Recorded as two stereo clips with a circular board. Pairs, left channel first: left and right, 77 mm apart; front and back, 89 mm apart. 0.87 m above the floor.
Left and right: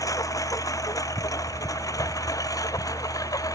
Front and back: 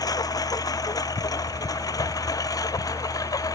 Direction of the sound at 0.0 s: 45° left.